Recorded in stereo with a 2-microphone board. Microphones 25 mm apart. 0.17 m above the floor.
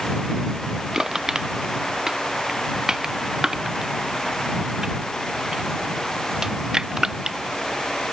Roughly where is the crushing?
Right.